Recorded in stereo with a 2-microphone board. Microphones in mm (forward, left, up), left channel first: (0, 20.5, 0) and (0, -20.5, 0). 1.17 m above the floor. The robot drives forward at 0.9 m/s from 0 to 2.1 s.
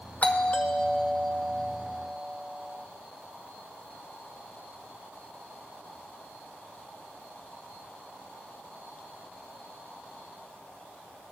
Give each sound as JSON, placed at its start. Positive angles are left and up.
{"t": 0.2, "sound": "a doorbell", "side_deg": 35, "distance_m": 0.5}